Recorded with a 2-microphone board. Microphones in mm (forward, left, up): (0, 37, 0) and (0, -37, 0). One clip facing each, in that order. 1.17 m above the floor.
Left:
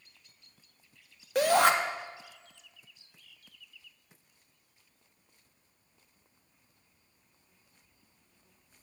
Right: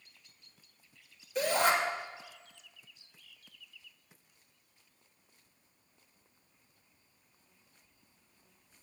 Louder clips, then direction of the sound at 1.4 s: Left 5 dB; 70° left (ahead or behind).